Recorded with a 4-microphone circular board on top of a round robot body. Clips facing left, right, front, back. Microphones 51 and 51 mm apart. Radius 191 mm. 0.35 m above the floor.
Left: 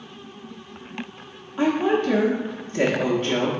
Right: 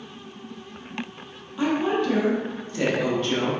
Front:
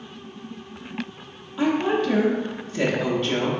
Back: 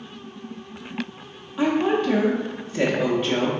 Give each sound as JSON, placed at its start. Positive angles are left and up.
{"t": 1.6, "sound": "a woman speaking", "azimuth_deg": 115, "distance_m": 0.9}